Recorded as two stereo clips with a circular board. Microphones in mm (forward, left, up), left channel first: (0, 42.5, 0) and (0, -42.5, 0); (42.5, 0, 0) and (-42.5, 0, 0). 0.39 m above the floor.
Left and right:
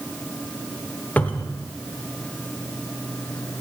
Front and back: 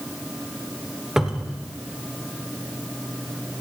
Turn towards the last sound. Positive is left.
turn(degrees=110)